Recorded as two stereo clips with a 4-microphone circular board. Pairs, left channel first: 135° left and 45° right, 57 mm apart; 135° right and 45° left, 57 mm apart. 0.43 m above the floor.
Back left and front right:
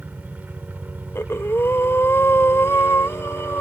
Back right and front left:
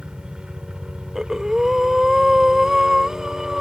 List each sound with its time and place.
0.0 s a helicopter: 15° right
1.1 s breathing: 125° left